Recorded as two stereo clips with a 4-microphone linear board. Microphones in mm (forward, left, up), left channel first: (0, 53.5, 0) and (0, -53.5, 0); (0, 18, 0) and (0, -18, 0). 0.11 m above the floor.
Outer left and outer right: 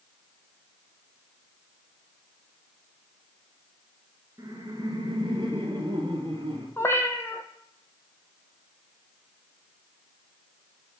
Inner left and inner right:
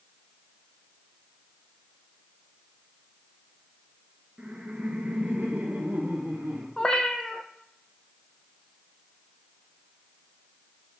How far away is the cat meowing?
About 1.1 m.